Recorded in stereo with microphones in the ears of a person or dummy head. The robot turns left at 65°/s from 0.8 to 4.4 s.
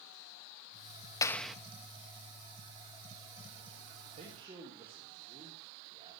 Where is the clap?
15° left (ahead or behind), 0.9 m; by 1.6 s 5° right (ahead or behind), 0.9 m.